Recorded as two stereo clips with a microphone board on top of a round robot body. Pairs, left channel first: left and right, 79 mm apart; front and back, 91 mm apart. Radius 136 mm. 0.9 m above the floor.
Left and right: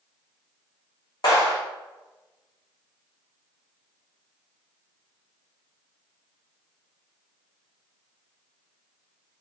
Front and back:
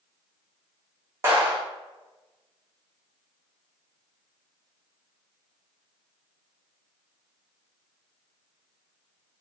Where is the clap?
125° left, 1.6 m.